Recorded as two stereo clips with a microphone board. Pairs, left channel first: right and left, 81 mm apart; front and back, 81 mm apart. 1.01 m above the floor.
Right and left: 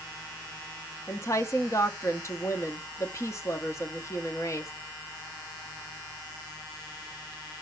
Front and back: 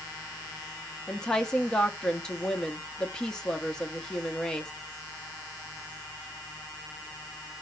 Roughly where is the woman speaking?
Right.